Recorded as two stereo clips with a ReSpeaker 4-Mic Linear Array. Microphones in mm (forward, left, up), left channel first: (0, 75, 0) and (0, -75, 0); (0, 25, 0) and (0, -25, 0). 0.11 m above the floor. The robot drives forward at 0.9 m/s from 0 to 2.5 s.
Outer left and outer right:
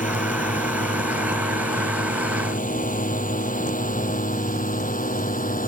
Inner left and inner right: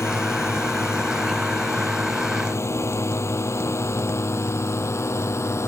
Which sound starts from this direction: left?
A drone, at 0.0 s.